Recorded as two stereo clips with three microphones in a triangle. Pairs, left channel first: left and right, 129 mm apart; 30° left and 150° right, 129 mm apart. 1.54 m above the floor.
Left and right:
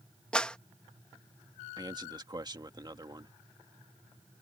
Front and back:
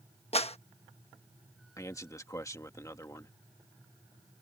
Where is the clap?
10° left.